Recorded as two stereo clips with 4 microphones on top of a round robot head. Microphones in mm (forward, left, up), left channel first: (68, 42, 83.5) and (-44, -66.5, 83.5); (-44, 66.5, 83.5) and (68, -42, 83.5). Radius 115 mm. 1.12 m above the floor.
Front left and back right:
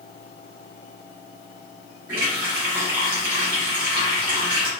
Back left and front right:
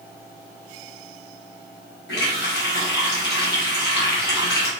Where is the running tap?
160° left, 1.5 m.